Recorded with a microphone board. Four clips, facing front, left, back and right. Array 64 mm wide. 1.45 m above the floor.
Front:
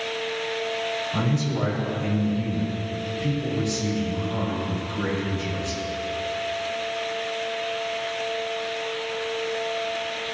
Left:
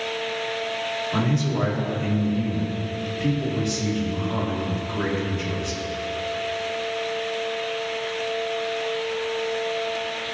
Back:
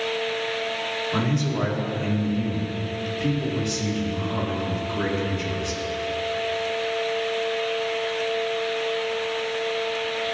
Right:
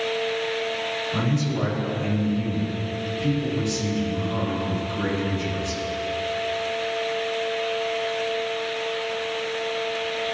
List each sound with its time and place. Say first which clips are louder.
1.1 s a man speaking: left 2 dB, back 3 dB; 135° left, 2 m